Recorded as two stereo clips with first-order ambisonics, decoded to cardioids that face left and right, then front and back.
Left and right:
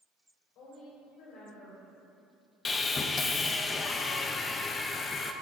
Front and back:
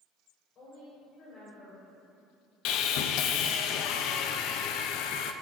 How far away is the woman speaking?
About 4 m.